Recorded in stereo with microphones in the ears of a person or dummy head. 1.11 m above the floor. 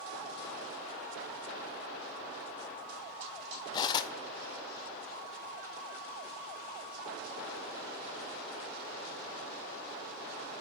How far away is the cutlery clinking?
About 0.6 m.